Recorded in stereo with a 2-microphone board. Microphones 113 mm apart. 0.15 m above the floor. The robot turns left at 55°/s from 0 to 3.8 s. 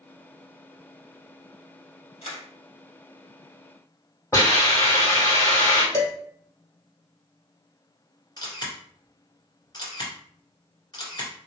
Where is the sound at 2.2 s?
70° left (ahead or behind), 2 m; by 2.4 s 60° left (ahead or behind), 2 m.